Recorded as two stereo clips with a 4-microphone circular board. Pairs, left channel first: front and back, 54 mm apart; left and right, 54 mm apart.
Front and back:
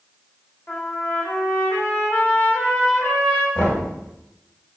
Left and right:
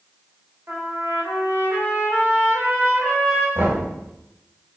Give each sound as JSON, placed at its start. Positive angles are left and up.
{"t": 0.7, "sound": "a trumpet", "azimuth_deg": -45, "distance_m": 1.6}
{"t": 3.5, "sound": "knocking", "azimuth_deg": -50, "distance_m": 2.0}